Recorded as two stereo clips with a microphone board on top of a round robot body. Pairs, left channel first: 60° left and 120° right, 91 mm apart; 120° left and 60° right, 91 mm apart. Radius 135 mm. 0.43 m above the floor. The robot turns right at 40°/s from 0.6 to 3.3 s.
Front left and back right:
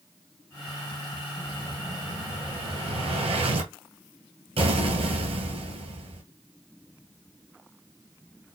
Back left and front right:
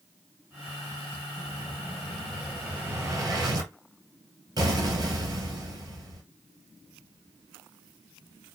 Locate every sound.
1.4 s an explosion: 175° left, 3 m; by 6.2 s 110° right, 3 m